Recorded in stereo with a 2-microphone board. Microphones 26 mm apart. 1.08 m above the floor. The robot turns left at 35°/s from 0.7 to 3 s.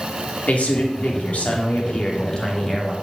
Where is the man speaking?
90° left, 2.5 m; by 2.9 s 10° left, 2.5 m.